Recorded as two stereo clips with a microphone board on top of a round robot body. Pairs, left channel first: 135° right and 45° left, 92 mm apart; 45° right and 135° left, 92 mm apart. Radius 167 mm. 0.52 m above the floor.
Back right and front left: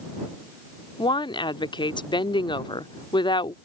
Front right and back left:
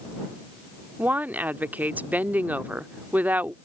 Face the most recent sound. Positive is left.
turn(degrees=-155)